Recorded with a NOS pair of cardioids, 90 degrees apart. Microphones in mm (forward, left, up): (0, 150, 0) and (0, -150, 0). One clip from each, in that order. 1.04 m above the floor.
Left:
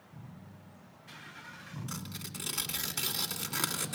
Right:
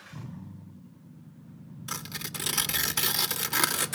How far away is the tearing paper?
About 2.5 m.